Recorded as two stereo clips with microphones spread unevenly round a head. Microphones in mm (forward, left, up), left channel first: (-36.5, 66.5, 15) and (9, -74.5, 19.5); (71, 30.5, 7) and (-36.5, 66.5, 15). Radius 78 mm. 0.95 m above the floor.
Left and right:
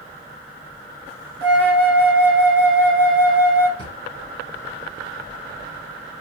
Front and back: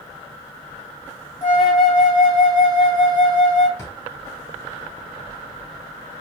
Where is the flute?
25° left, 1.7 m.